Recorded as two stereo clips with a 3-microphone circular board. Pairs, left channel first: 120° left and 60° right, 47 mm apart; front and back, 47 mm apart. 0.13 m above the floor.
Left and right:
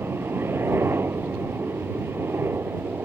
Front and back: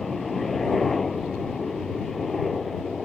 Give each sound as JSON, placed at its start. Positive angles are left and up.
{"t": 0.0, "sound": "a helicopter", "azimuth_deg": -85}